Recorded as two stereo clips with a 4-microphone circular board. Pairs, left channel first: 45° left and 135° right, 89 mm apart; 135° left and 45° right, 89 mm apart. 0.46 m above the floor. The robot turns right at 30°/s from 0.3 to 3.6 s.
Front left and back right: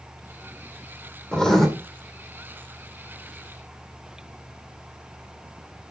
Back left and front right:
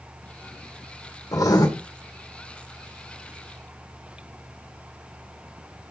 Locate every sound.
1.3 s writing: 120° left, 1.8 m; by 1.7 s 130° left, 1.8 m